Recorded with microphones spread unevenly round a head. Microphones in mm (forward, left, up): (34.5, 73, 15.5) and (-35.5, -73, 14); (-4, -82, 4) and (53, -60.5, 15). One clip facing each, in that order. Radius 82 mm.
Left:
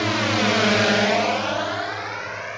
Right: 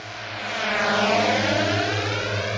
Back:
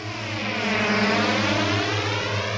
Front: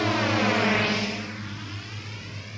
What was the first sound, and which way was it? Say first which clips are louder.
A drone: left 14 dB, front 7 dB; 60° left.